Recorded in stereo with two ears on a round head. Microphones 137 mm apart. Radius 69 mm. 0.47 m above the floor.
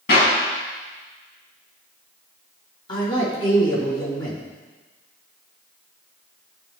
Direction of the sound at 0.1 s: 75° left (ahead or behind).